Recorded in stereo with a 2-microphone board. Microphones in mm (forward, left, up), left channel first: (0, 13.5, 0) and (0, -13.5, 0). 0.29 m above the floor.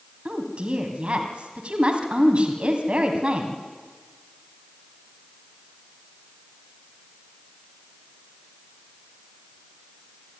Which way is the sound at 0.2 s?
40° right (ahead or behind).